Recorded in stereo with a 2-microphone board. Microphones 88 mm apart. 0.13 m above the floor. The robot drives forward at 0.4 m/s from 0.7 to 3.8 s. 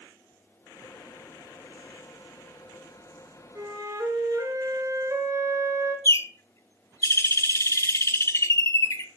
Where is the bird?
30° left (ahead or behind), 0.6 m.